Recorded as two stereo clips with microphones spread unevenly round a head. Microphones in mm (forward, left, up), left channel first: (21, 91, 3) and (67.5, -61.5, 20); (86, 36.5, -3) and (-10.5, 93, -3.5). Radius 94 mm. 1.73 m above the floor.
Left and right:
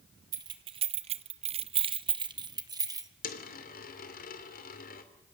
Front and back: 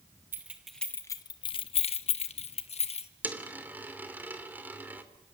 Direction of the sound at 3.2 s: 75° left.